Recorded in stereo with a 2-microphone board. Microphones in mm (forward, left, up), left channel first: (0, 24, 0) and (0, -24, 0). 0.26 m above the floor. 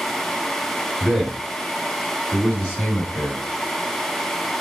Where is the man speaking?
20° right (ahead or behind), 1.5 m; by 3.4 s 25° left (ahead or behind), 1.7 m.